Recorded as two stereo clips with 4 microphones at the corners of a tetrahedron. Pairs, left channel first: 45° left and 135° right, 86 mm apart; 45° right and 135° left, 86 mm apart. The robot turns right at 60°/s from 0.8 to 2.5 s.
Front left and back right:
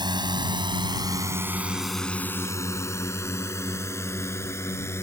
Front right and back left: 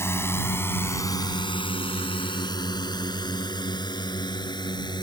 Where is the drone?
105° right; by 5.0 s 15° right.